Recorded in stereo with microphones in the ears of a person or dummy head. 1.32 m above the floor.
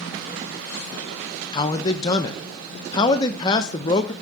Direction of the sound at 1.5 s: 20° left (ahead or behind).